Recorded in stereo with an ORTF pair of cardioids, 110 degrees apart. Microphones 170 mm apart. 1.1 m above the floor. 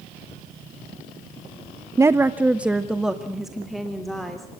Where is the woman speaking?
20° right, 0.8 m; by 4.5 s straight ahead, 3 m.